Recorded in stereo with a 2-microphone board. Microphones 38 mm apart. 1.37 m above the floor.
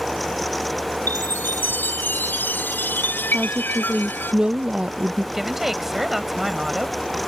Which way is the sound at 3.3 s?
30° right (ahead or behind).